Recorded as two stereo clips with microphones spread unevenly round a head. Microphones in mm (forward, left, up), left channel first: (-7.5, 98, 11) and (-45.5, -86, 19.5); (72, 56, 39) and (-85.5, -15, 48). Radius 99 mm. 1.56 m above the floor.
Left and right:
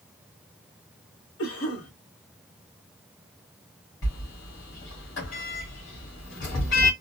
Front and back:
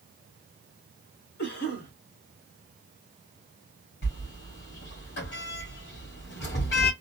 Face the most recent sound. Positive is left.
turn(degrees=45)